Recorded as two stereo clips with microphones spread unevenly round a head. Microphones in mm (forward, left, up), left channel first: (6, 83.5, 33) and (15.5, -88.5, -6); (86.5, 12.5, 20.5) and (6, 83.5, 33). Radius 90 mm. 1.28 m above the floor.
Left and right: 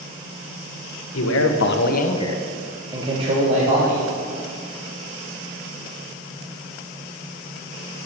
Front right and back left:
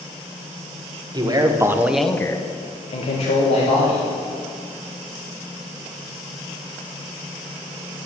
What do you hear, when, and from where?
1.1 s a man speaking: 90° left, 1.7 m; by 4.0 s 45° right, 2.5 m